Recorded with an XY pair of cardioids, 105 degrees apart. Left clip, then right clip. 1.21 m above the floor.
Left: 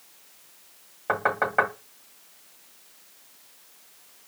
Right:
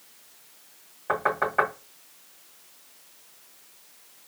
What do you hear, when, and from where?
1.1 s knocking: 35° left, 1.6 m